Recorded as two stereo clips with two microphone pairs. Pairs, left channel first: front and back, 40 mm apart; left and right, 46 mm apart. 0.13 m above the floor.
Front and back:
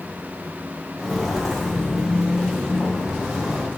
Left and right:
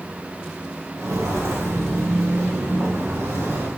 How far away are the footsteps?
About 3 m.